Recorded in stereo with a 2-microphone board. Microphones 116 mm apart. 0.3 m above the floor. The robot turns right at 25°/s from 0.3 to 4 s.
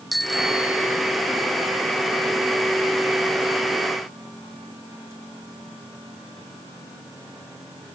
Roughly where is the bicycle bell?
Centre.